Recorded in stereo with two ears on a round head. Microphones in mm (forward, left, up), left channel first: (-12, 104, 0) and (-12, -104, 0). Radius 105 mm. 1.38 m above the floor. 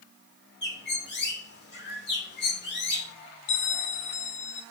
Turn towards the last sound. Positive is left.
turn(degrees=60)  # may be behind; listen again after turning